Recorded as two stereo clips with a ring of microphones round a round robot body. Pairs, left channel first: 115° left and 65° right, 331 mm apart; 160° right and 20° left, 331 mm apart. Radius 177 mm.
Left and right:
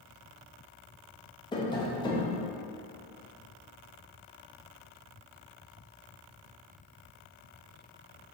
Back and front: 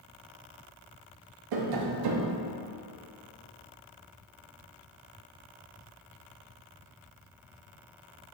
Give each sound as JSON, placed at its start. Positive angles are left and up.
{"t": 1.5, "sound": "tapping", "azimuth_deg": 35, "distance_m": 0.6}